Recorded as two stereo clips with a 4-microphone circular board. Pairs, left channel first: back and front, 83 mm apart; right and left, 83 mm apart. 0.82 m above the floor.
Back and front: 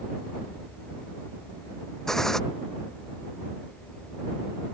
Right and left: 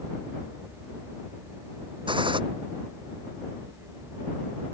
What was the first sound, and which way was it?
A gunshot, 95° left.